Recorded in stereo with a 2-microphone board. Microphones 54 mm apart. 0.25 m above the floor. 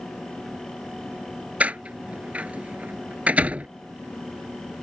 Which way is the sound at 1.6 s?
25° right (ahead or behind).